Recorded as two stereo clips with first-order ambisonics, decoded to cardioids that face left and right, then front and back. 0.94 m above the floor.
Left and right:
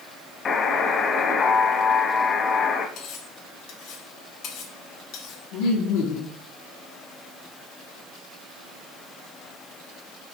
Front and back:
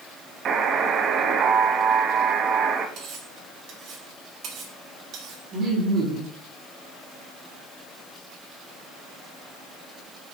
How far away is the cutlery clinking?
About 2 m.